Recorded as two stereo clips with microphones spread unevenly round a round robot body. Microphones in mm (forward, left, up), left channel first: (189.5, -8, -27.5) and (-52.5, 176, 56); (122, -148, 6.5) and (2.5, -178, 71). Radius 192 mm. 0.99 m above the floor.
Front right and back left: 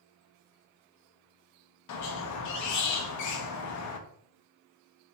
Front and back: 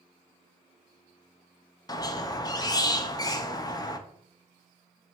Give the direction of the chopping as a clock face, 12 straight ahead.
No chopping in this recording.